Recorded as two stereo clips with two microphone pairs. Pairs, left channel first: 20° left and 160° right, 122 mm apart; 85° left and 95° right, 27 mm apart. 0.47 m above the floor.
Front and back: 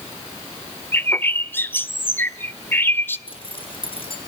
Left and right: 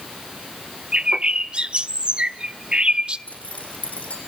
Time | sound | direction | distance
0.9 | a bird | 50° right | 1.1 m
3.3 | a zipper | 65° left | 9 m